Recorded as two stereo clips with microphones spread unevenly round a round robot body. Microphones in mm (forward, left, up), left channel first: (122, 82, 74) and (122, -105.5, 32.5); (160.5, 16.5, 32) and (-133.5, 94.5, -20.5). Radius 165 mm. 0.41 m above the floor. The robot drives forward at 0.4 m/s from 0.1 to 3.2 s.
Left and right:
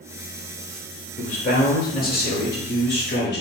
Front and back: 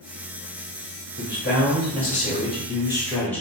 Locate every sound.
1.2 s a man speaking: 40° left, 1.5 m; by 3.4 s 80° left, 1.1 m